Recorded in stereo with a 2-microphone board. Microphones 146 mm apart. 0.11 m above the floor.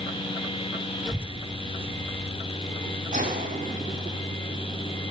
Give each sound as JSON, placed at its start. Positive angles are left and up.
{"t": 1.1, "sound": "a child speaking", "side_deg": 0, "distance_m": 0.8}
{"t": 3.1, "sound": "a gunshot", "side_deg": -75, "distance_m": 5.5}